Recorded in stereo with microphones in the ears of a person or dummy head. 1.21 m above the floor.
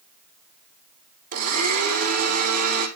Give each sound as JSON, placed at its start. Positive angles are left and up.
{"t": 1.3, "sound": "a blender", "side_deg": -40, "distance_m": 3.5}